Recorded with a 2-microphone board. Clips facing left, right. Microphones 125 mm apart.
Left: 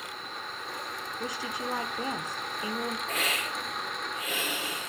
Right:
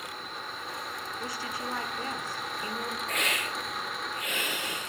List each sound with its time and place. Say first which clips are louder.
1.2 s a woman speaking: left 3 dB; 20° left (ahead or behind), 0.9 m
3.1 s a hiss: even; centre (ahead or behind), 5.5 m